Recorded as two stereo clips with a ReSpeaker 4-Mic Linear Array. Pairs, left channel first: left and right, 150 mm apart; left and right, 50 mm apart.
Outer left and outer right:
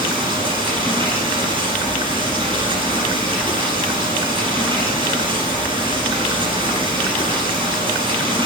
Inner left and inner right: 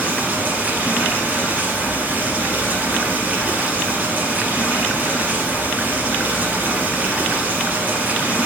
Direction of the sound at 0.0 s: 35° right (ahead or behind).